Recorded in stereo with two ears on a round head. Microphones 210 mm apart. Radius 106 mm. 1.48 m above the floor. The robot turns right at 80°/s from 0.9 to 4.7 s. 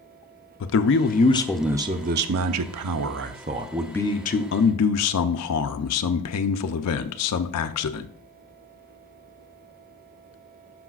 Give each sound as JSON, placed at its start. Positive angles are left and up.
{"t": 0.6, "sound": "a man speaking", "azimuth_deg": 125, "distance_m": 0.5}